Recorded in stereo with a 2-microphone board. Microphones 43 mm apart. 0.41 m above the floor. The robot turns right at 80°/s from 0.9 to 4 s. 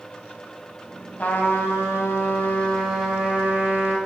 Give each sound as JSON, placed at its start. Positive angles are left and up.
{"t": 1.2, "sound": "a trumpet", "azimuth_deg": 35, "distance_m": 1.6}